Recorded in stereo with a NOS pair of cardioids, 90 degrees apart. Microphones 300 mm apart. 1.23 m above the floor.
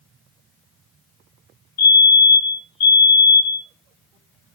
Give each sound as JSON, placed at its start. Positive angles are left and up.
{"t": 1.8, "sound": "a fire alarm", "azimuth_deg": 65, "distance_m": 5.0}